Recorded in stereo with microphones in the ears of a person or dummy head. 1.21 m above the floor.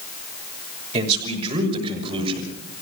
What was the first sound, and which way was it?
A man speaking, 35° right (ahead or behind).